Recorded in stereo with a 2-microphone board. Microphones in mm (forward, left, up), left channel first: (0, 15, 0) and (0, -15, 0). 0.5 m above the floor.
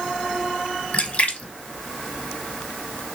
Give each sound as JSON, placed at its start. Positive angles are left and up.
{"t": 0.9, "sound": "a splash", "side_deg": 55, "distance_m": 0.7}